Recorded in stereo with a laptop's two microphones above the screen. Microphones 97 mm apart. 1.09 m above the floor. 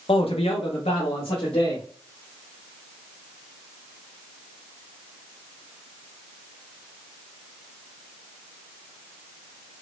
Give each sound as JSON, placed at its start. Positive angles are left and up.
{"t": 0.1, "sound": "a man speaking", "side_deg": 70, "distance_m": 0.7}